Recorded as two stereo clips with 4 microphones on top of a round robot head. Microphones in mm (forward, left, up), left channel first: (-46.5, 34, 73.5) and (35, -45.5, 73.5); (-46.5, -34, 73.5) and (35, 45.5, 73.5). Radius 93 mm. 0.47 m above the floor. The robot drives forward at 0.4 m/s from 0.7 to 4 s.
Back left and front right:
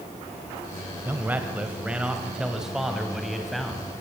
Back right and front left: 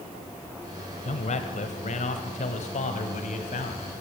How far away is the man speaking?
About 2.5 m.